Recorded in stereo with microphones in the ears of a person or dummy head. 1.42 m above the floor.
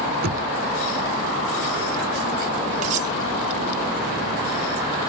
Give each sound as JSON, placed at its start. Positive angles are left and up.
{"t": 0.2, "sound": "knocking", "side_deg": -55}
{"t": 2.8, "sound": "cutlery clinking", "side_deg": -40}